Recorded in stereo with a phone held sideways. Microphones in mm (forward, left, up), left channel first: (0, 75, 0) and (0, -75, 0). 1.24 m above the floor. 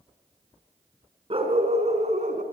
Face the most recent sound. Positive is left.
turn(degrees=-60)  # may be behind; listen again after turning